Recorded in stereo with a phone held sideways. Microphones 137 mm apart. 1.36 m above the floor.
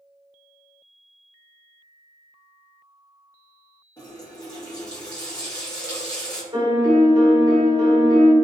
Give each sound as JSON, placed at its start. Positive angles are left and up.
{"t": 4.0, "sound": "a running tap", "side_deg": 30, "distance_m": 1.0}
{"t": 6.5, "sound": "a piano", "side_deg": -35, "distance_m": 1.2}